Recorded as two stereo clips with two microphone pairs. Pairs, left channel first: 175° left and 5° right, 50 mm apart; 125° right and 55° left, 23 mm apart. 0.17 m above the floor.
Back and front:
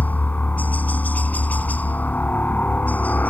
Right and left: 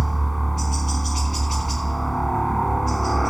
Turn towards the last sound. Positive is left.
turn(degrees=155)